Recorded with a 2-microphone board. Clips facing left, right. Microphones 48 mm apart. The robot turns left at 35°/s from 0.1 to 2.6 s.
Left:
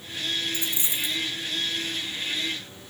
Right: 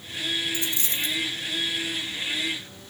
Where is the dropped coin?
30° left (ahead or behind), 0.6 m; by 1.2 s 10° left (ahead or behind), 0.6 m.